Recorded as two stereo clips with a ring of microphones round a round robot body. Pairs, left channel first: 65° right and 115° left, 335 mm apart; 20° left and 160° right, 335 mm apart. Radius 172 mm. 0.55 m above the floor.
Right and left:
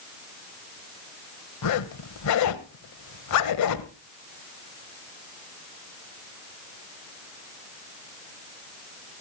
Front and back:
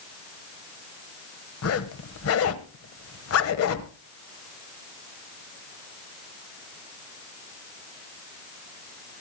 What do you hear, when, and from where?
1.6 s a zipper: 25° right, 1.1 m